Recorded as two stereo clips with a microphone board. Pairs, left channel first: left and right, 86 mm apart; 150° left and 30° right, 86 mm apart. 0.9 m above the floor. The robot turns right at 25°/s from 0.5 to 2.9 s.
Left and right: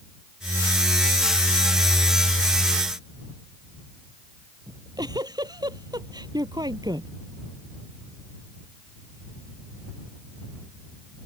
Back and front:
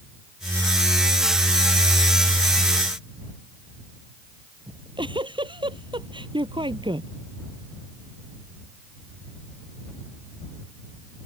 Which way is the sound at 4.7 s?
50° right.